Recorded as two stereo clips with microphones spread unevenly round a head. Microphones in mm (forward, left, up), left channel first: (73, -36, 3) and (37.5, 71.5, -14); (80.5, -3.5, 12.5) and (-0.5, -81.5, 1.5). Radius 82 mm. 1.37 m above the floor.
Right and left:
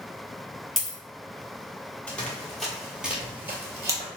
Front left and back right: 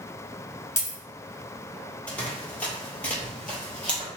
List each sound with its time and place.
0.8 s a dropped coin: 5° left, 1.7 m
2.1 s running footsteps: 15° right, 1.7 m; by 4.1 s 100° left, 1.4 m